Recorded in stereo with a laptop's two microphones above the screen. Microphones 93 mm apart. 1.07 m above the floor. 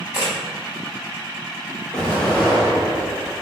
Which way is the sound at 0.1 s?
30° right (ahead or behind).